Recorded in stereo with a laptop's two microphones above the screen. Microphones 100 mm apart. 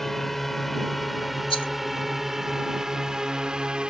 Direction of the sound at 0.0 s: 5° left (ahead or behind).